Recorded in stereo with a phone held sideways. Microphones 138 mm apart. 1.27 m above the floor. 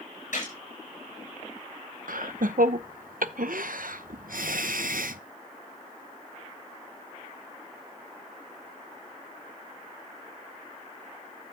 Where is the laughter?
90° right, 0.7 m.